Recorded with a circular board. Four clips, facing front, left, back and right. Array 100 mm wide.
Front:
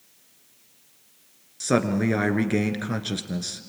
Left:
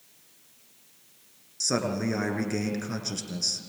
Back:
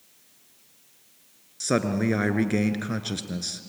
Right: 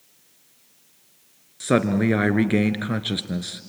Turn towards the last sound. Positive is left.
turn(degrees=-80)